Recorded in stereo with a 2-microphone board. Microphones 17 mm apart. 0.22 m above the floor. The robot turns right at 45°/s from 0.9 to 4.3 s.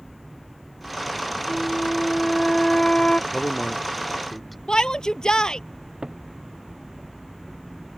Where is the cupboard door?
60° right (ahead or behind).